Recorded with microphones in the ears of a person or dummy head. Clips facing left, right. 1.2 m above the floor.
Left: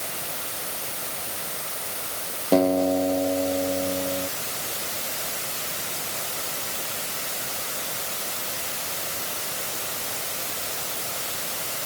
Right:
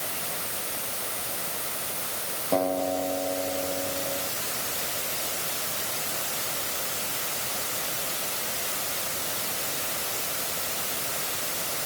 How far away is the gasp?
No gasp in this recording.